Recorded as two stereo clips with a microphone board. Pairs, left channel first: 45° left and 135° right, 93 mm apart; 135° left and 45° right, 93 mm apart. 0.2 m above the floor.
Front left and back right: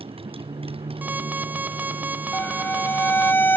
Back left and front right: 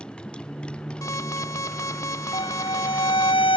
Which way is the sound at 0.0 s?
145° right.